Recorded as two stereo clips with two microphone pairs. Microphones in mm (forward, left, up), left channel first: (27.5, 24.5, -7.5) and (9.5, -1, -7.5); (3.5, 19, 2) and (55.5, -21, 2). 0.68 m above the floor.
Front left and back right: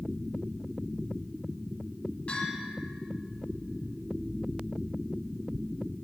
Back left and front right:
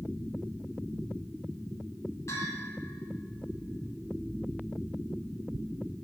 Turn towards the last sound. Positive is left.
turn(degrees=100)